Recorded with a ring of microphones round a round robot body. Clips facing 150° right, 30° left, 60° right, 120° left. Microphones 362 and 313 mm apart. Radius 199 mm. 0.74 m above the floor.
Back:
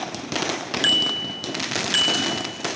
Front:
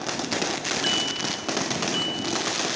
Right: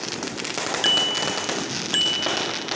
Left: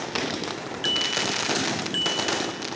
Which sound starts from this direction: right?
A bicycle bell, at 0.8 s.